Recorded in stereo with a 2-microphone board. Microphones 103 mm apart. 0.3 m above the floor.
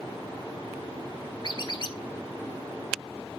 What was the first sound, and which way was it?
A squeak, 50° left (ahead or behind).